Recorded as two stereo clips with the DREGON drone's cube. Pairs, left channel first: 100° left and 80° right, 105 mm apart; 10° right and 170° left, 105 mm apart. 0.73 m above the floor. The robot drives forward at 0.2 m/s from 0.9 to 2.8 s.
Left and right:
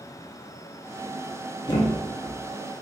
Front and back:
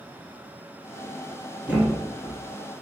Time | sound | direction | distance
1.7 | a thud | 95° left | 0.9 m